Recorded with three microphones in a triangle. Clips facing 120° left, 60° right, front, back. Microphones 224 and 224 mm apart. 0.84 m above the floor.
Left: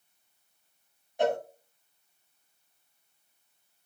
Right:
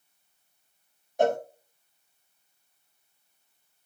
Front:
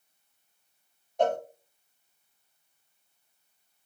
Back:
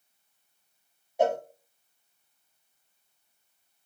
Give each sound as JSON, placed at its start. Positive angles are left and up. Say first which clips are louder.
{"t": 1.2, "sound": "a cowbell", "louder": "right 3 dB, back 1 dB", "azimuth_deg": -100, "distance_m": 0.6}